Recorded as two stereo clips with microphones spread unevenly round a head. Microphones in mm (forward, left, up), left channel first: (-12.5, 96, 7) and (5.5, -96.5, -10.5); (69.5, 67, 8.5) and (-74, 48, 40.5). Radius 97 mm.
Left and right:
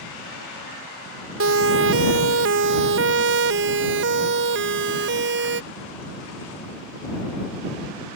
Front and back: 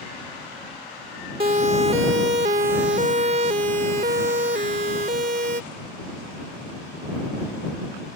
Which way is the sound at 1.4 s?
110° right.